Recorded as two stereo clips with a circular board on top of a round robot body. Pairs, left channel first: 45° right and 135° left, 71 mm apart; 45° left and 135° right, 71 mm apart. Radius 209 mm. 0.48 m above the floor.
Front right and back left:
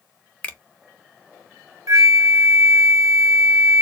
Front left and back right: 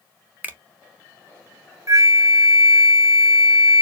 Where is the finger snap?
95° right, 1.2 m.